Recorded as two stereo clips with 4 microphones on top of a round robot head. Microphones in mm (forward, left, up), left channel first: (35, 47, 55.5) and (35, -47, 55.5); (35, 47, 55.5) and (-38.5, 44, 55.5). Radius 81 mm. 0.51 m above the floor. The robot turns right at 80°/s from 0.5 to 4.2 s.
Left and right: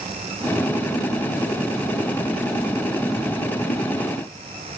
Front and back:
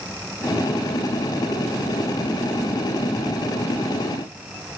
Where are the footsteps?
I don't hear footsteps.